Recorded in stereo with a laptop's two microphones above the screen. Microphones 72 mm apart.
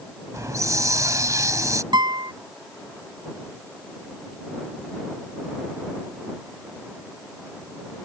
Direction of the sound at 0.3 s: 50° right (ahead or behind).